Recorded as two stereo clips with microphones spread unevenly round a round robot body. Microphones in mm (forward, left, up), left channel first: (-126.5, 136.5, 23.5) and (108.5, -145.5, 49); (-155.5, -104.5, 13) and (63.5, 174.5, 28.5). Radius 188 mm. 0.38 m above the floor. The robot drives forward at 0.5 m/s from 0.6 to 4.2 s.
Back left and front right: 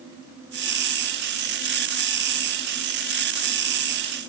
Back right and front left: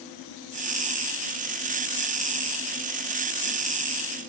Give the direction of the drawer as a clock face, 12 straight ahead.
No drawer in this recording.